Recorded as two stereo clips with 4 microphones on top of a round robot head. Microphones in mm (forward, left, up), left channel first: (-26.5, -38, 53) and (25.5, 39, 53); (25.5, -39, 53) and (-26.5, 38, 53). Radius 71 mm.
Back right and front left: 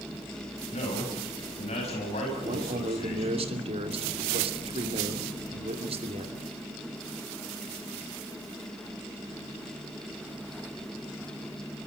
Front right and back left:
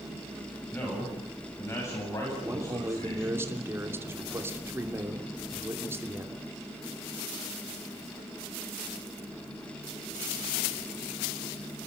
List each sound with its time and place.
0.7 s a man speaking: 125° right, 6.5 m; by 3.4 s 105° right, 7.5 m
2.4 s a man speaking: 60° left, 3 m